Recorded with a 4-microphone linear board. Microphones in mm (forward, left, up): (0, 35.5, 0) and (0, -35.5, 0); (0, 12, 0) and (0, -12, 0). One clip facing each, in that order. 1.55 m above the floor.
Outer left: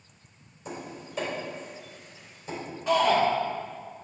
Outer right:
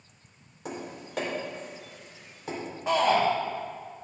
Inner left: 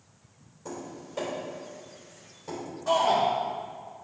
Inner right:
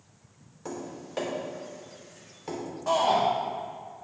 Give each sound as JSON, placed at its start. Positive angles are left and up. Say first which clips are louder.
{"t": 0.7, "sound": "tapping", "louder": "outer right 1 dB, inner right 2 dB", "side_deg": -75, "distance_m": 3.0}
{"t": 2.9, "sound": "a shout", "louder": "outer left 1 dB, even", "side_deg": -25, "distance_m": 2.5}